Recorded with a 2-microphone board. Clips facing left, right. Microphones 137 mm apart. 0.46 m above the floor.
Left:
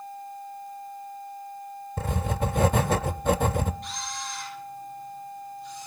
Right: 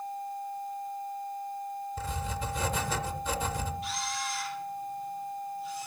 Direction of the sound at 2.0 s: 60° left (ahead or behind).